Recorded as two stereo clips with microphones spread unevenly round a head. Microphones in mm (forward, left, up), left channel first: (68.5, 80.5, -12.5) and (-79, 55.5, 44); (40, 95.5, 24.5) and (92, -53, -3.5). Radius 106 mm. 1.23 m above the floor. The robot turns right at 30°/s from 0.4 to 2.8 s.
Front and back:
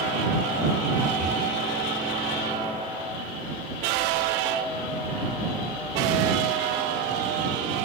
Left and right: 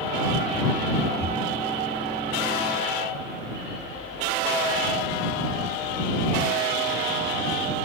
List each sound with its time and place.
1.2 s breathing: 160° left; by 1.4 s 165° left